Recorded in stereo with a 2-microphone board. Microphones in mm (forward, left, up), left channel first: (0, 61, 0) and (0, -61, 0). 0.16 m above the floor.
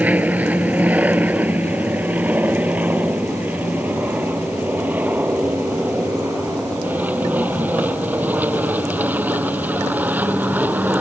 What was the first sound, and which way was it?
An aircraft, 10° right (ahead or behind).